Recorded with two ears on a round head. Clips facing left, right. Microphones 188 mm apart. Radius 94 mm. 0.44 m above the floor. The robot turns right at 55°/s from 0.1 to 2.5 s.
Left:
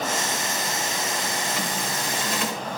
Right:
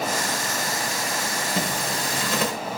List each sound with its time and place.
1.6 s a zipper: 140° right, 1.0 m; by 2.5 s 85° right, 1.0 m